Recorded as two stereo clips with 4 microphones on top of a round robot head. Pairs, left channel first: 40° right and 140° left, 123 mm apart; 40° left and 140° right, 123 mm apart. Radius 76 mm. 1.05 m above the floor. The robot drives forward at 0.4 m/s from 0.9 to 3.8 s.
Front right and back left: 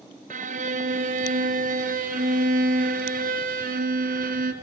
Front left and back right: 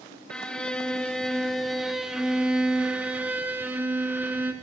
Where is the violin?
120° left, 2 m; by 4.5 s 140° left, 3 m.